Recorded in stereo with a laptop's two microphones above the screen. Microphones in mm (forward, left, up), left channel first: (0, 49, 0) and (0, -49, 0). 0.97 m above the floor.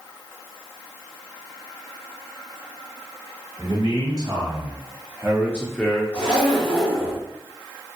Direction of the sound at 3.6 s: 45° right (ahead or behind).